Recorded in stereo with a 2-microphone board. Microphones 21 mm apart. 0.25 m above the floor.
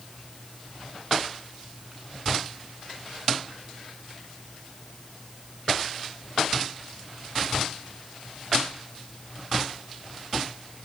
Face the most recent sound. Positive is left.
No sound to turn to.